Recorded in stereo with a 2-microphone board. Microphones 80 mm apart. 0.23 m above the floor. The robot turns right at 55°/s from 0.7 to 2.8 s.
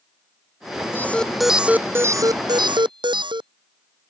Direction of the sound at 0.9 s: 155° left.